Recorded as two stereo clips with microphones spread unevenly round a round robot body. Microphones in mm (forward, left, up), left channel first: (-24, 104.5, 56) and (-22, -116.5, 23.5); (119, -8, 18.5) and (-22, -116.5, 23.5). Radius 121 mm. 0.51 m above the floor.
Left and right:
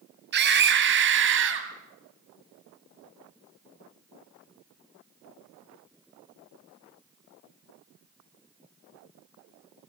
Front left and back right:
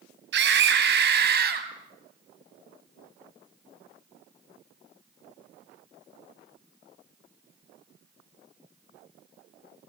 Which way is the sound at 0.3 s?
125° right.